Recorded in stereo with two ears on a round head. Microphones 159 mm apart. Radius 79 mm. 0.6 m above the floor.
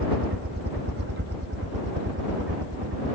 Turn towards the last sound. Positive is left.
turn(degrees=-70)  # may be behind; listen again after turning